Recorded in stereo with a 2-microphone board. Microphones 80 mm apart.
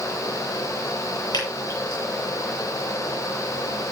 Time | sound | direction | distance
1.3 | dripping | 70° left (ahead or behind) | 8.5 m